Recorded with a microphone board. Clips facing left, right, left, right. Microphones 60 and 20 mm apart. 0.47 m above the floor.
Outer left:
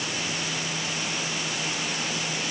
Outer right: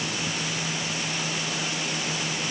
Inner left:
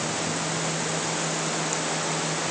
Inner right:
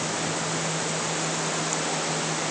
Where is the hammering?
I don't hear hammering.